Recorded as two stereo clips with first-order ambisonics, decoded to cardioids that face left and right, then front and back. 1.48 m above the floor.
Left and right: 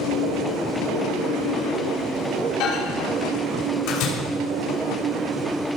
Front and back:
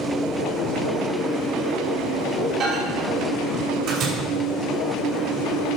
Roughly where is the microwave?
Behind left.